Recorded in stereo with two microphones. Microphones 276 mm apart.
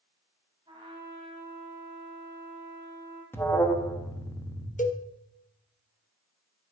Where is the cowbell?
25° left (ahead or behind), 0.7 m.